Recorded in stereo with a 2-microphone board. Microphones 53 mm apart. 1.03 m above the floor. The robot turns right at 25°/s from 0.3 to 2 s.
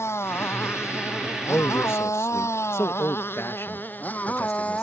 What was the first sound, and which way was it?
A motorcycle, 55° left (ahead or behind).